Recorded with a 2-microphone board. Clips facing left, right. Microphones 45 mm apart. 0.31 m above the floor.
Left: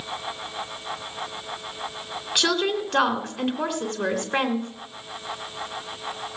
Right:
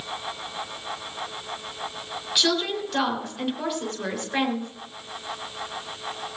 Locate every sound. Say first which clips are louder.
2.4 s a woman speaking: left 1 dB; 50° left (ahead or behind), 3 m